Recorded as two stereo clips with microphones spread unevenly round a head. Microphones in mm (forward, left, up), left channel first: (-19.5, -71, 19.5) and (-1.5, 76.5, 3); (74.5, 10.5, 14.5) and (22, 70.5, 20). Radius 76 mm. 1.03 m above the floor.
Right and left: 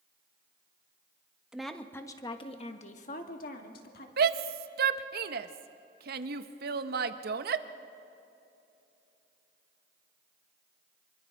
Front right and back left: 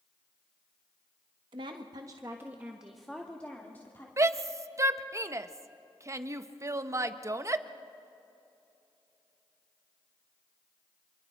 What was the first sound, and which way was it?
A woman speaking, 165° left.